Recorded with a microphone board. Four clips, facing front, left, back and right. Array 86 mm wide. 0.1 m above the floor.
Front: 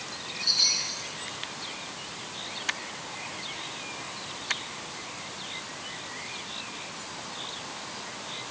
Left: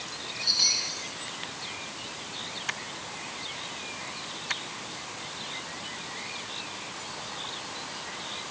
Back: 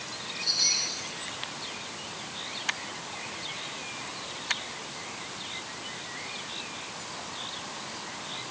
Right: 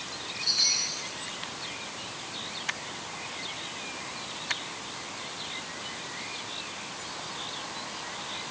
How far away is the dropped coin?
No dropped coin in this recording.